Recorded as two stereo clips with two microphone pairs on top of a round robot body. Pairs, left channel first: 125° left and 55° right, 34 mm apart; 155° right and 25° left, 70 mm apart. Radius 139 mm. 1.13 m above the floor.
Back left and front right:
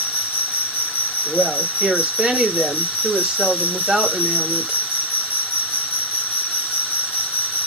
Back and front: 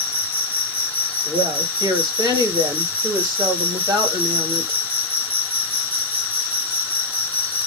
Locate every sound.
0.0 s an insect: 140° left, 0.8 m
1.2 s a woman speaking: 15° left, 2.0 m